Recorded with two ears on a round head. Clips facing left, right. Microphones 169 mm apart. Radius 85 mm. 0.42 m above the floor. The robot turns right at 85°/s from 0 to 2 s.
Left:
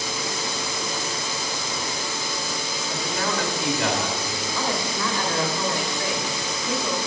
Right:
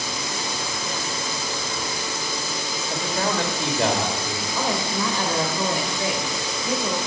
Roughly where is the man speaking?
Right.